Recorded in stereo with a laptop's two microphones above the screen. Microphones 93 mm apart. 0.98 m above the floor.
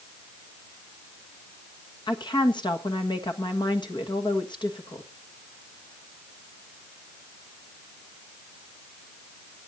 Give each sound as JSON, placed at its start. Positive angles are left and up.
{"t": 2.1, "sound": "a woman speaking", "side_deg": 55, "distance_m": 1.3}